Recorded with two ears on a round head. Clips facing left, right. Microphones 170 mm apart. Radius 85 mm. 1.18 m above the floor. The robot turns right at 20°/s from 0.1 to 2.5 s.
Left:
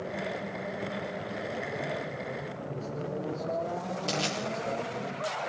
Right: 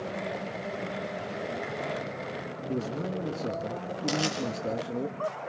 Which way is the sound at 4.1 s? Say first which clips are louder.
Right 4 dB; 15° right (ahead or behind).